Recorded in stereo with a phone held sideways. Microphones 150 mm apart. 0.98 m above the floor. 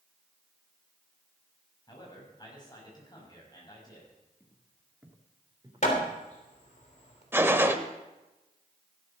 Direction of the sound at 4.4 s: 5° left (ahead or behind).